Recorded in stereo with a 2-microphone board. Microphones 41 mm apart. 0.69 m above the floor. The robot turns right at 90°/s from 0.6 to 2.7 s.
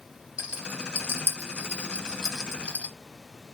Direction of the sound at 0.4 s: 25° right (ahead or behind).